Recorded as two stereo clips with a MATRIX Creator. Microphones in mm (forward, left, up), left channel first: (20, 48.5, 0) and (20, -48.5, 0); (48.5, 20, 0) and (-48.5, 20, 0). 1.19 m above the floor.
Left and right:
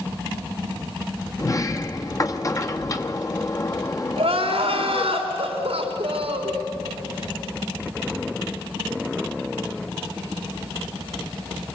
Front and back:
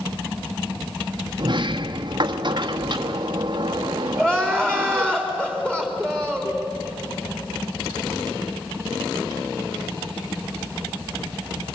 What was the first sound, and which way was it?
A sliding door, 145° left.